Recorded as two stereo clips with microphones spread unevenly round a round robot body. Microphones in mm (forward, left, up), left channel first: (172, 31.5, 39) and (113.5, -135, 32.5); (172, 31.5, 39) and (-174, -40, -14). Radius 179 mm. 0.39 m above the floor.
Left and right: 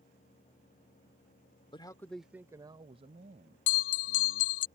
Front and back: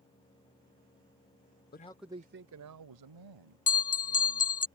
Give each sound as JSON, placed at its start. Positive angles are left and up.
{"t": 1.7, "sound": "a man speaking", "azimuth_deg": 55}
{"t": 3.7, "sound": "a bell", "azimuth_deg": 80}